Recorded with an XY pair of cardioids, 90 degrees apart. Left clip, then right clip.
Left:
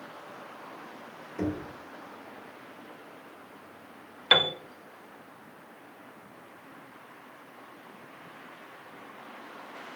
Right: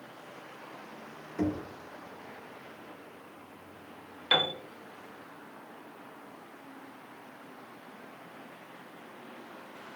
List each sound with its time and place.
1.4 s knocking: 15° right, 1.4 m
4.3 s a piano: 40° left, 0.6 m